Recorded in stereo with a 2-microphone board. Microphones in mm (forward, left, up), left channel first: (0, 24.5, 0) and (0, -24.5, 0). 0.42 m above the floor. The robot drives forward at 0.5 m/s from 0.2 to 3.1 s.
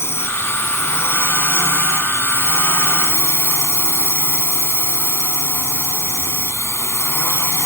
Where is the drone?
60° left (ahead or behind); by 7.7 s 65° left (ahead or behind).